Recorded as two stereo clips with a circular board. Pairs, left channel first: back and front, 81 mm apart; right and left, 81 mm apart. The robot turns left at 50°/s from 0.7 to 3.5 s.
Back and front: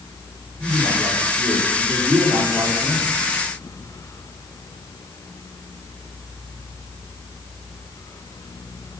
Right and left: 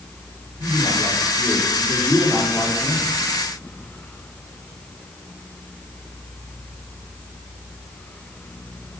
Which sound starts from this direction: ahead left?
A man speaking, at 0.6 s.